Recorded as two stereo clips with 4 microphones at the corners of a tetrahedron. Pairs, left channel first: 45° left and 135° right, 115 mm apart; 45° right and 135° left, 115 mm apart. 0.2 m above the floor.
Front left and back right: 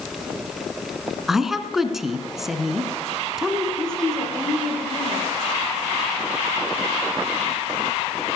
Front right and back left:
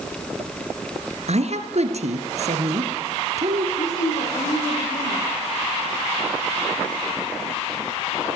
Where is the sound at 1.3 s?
140° left, 2 m.